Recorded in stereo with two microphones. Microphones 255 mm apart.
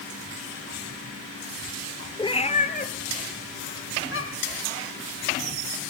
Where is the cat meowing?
15° left (ahead or behind), 1.4 m; by 4.6 s 55° left (ahead or behind), 3 m.